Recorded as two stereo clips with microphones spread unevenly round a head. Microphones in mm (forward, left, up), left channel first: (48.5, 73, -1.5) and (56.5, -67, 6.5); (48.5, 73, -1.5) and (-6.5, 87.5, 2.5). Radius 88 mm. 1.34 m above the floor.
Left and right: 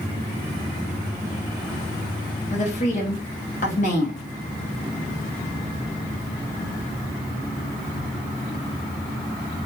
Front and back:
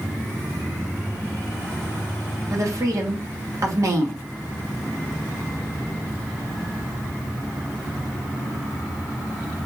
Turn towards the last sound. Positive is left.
turn(degrees=135)